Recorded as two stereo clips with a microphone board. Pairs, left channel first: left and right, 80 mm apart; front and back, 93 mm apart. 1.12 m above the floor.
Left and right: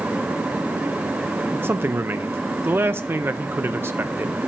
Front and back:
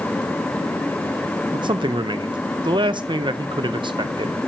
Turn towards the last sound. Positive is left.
turn(degrees=-150)